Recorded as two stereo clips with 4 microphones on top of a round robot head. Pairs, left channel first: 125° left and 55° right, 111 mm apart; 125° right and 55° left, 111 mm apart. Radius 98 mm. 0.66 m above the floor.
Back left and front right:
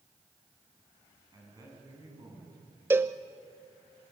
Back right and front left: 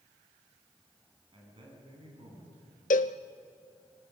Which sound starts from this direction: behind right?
A cowbell, at 2.9 s.